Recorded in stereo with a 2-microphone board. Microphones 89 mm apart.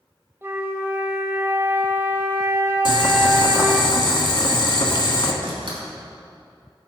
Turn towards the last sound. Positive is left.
turn(degrees=-75)  # may be behind; listen again after turning